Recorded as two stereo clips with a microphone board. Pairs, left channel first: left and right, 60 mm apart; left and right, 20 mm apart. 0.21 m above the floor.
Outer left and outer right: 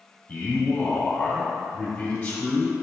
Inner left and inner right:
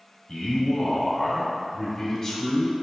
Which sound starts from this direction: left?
A man speaking, at 0.3 s.